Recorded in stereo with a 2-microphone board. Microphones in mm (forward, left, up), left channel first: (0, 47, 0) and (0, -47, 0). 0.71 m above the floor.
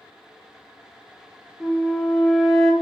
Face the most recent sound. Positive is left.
turn(degrees=0)  # may be behind; listen again after turning